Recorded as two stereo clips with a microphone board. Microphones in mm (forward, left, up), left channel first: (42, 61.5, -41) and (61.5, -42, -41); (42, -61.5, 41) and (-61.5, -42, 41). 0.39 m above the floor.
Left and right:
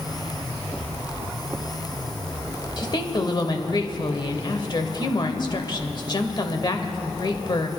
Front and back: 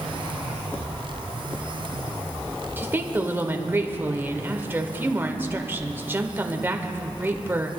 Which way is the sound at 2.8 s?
110° left.